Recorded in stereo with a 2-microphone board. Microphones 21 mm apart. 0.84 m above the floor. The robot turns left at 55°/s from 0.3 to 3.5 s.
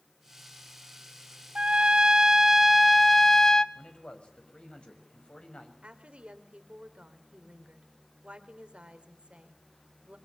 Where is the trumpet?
95° right, 0.8 m; by 3.6 s 160° left, 0.8 m.